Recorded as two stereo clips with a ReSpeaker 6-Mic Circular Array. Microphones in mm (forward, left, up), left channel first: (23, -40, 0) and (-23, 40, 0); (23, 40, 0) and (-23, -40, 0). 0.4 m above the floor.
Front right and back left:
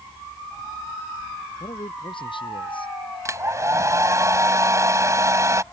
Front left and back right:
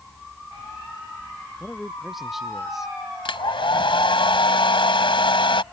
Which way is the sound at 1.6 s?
30° right.